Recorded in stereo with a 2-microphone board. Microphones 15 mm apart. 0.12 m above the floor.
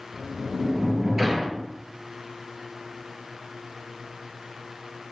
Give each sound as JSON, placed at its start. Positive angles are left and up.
{"t": 0.1, "sound": "a sliding door", "side_deg": -25, "distance_m": 1.9}